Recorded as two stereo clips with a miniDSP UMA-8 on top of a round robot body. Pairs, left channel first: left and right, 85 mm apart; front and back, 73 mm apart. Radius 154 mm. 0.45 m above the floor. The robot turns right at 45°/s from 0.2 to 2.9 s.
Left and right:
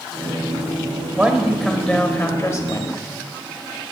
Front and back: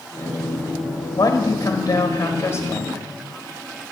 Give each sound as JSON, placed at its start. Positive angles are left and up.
{"t": 1.2, "sound": "a man speaking", "azimuth_deg": -30, "distance_m": 1.3}